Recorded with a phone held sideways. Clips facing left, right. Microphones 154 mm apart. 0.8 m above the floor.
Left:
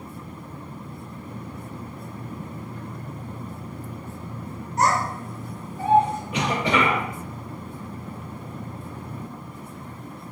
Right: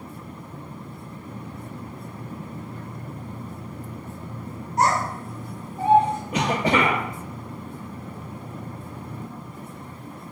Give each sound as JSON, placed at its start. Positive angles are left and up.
{"t": 4.8, "sound": "a child speaking", "side_deg": -35, "distance_m": 2.0}
{"t": 6.3, "sound": "a cough", "side_deg": -45, "distance_m": 0.6}